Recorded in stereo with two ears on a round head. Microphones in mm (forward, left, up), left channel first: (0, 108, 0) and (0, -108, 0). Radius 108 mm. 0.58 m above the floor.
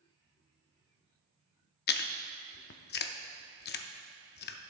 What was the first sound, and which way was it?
Chewing, 45° left (ahead or behind).